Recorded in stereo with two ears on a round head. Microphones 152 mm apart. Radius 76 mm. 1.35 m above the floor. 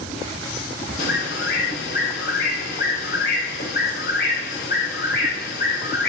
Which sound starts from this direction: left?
A bird, at 1.0 s.